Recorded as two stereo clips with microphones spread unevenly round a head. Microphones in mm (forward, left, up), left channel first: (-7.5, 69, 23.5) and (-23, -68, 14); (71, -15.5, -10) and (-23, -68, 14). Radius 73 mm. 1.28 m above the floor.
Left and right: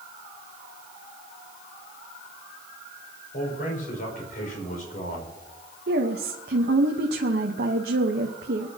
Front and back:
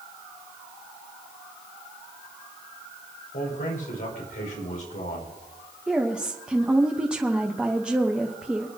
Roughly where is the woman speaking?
Right.